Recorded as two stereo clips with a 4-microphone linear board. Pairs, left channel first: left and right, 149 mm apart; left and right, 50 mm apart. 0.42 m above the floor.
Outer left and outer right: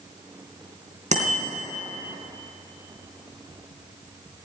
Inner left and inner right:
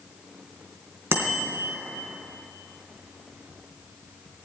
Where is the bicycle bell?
50° right (ahead or behind), 3.5 m.